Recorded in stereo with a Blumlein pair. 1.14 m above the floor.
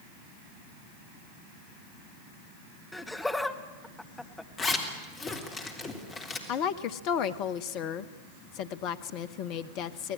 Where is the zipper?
20° left, 3.5 m.